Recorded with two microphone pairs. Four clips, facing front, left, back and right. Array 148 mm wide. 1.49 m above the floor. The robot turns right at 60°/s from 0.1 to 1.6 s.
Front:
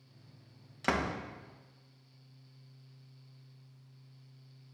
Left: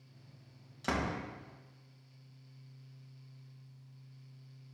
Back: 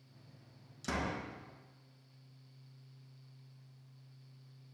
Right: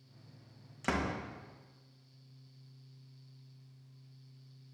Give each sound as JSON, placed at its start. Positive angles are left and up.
{"t": 0.8, "sound": "a door slam", "azimuth_deg": 0, "distance_m": 1.6}